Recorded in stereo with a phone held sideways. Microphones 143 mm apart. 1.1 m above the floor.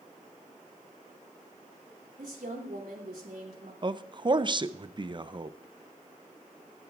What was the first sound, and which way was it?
A woman speaking, 85° right.